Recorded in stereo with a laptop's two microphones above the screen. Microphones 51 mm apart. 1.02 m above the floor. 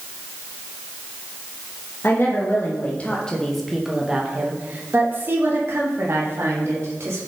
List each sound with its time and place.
2.0 s a woman speaking: 50° left (ahead or behind), 1.2 m; by 7.2 s 60° right (ahead or behind), 2.5 m